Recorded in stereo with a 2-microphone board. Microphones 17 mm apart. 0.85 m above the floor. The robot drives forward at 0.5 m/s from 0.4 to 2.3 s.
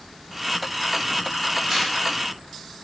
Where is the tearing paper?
25° right (ahead or behind), 2 m.